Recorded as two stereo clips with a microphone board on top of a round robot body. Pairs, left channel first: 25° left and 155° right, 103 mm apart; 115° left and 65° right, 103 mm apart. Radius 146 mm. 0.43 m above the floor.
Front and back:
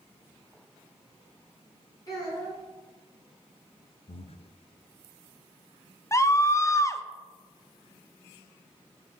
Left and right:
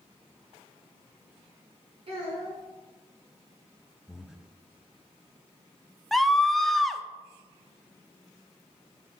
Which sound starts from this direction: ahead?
Breathing, at 4.1 s.